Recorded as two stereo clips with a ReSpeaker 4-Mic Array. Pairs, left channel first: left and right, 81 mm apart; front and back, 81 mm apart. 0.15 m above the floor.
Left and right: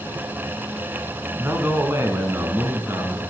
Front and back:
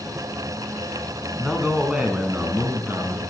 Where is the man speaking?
95° right, 1.3 m; by 3.2 s 130° right, 1.8 m.